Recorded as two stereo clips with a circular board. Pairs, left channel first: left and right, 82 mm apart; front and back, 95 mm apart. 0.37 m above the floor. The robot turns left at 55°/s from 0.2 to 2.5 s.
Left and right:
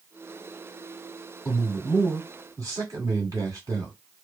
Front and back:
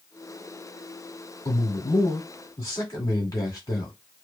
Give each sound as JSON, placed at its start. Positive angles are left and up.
{"t": 1.4, "sound": "a man speaking", "azimuth_deg": 10, "distance_m": 1.9}